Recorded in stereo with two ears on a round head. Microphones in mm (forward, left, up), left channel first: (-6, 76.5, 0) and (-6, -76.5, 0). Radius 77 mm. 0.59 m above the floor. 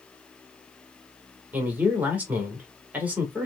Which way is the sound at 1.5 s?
10° right (ahead or behind).